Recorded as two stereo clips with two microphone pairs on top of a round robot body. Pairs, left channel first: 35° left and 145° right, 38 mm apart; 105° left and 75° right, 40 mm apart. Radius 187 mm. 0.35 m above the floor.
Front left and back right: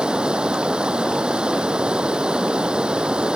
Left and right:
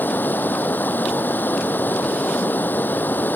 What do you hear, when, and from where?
0.0 s running water: 145° left